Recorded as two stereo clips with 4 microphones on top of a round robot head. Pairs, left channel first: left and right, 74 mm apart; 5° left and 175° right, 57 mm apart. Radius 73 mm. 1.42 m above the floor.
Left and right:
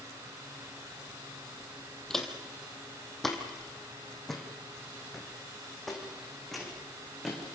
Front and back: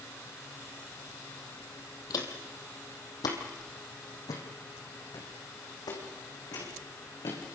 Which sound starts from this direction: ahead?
Footsteps, at 2.1 s.